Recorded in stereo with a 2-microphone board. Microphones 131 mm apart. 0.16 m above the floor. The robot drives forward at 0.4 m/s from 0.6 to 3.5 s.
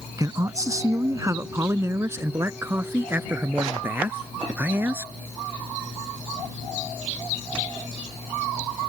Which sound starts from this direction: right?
A man speaking, at 0.2 s.